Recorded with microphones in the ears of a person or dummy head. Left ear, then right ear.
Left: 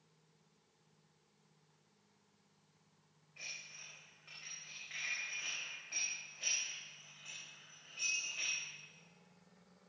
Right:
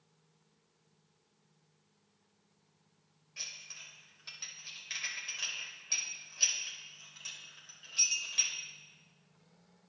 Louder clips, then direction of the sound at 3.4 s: Right 4 dB; 75° right (ahead or behind).